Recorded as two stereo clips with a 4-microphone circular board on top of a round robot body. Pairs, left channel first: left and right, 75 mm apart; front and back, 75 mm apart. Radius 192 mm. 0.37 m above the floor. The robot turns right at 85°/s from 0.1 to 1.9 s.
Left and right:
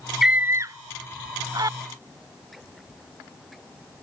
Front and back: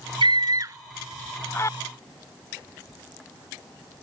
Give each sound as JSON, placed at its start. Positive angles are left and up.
{"t": 0.2, "sound": "a scream", "azimuth_deg": -175}